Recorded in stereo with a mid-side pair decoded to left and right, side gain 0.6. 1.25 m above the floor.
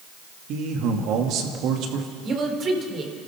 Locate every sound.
0.5 s a man speaking: 65° right, 2.5 m
2.2 s a woman speaking: 40° right, 3.5 m